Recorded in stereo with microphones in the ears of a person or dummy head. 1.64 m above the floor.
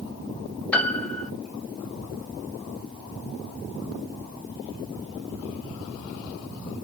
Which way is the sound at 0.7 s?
5° left (ahead or behind).